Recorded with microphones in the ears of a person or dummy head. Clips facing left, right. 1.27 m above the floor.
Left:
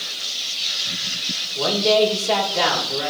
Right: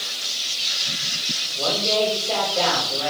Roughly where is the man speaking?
Left.